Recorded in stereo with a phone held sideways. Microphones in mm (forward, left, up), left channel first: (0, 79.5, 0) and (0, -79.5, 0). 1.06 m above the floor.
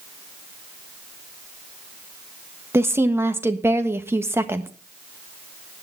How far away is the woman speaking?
About 1.4 m.